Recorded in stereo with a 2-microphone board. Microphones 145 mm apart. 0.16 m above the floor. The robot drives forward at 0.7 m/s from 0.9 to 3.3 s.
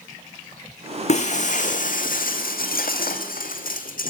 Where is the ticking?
I don't hear ticking.